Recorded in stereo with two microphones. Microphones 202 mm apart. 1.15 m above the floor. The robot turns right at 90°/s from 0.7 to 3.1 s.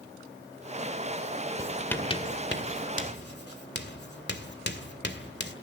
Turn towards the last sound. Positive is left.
turn(degrees=60)  # may be behind; listen again after turning